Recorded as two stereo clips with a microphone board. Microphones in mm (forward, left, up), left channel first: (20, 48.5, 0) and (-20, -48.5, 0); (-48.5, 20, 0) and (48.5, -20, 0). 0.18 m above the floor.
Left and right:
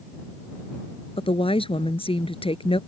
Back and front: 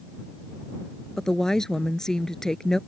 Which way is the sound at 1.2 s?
75° left.